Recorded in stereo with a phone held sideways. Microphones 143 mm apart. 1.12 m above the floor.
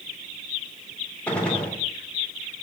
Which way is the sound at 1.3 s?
10° left (ahead or behind).